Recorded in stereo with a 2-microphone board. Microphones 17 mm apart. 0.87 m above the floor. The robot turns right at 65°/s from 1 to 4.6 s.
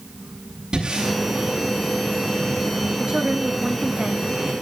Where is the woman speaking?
95° right, 1.3 m; by 4.2 s 15° right, 1.3 m.